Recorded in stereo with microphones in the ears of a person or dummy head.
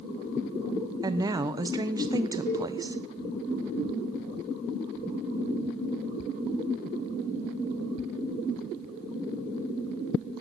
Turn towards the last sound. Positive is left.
turn(degrees=45)  # may be behind; listen again after turning